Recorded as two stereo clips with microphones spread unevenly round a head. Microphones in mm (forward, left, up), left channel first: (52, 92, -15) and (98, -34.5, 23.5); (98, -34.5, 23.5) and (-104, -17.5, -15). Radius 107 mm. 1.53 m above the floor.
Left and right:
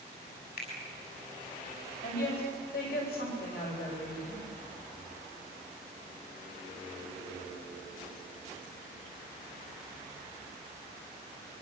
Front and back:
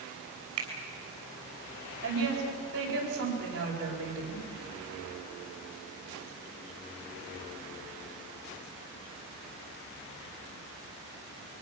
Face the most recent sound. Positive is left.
turn(degrees=130)